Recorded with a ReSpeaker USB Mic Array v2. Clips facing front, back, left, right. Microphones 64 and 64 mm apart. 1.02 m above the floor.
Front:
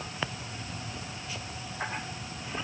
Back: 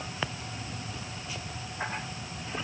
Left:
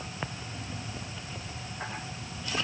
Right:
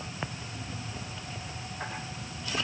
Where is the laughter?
No laughter in this recording.